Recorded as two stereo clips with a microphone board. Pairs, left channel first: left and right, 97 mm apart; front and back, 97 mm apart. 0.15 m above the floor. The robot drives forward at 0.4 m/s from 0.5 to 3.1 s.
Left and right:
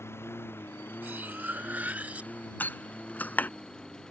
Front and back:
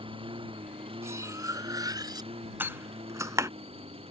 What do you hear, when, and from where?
0.0 s a lawn mower: 155° left; by 4.1 s 175° left
1.0 s cutlery clinking: 145° right; by 2.3 s 160° right
2.6 s a door slam: 135° left; by 3.5 s 150° left